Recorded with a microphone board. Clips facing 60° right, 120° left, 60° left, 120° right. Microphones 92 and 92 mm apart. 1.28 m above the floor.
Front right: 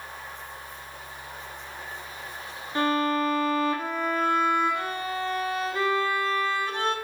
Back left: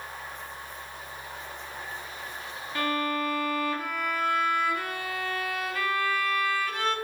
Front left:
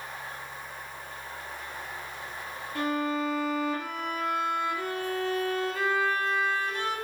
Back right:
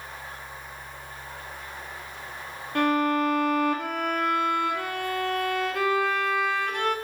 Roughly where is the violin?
Behind right.